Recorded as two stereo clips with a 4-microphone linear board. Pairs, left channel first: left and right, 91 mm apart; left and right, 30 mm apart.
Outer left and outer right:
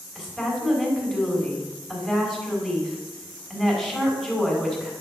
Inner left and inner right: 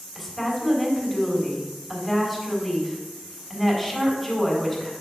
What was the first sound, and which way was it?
A woman speaking, 5° right (ahead or behind).